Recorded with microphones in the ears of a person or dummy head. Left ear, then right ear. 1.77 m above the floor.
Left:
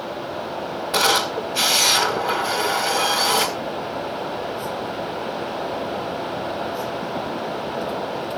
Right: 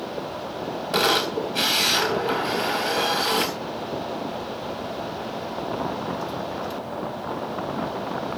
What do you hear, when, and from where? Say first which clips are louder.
0.9 s a camera shutter: left 2 dB; 5° right (ahead or behind), 3.5 m